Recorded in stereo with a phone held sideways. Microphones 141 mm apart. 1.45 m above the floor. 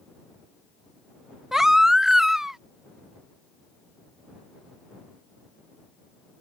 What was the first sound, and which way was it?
A baby crying, 5° right (ahead or behind).